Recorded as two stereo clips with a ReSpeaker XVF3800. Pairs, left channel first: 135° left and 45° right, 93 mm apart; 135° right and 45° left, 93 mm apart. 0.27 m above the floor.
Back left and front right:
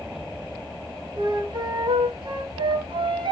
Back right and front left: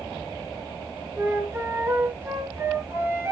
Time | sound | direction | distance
1.2 | a flute | 15° right | 5 m